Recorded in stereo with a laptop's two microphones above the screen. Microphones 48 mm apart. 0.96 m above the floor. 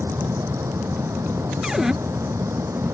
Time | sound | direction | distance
0.0 | a fan | 85° right | ?
1.6 | a cupboard door | 10° right (ahead or behind) | ?